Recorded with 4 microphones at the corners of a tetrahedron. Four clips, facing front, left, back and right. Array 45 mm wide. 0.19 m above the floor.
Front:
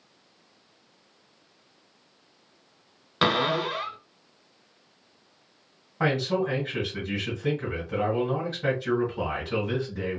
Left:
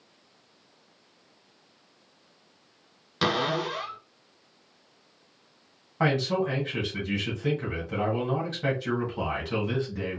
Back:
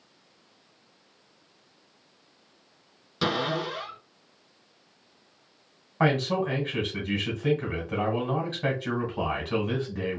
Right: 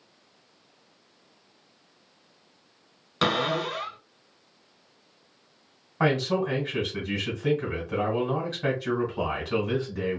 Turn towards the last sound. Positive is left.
turn(degrees=-175)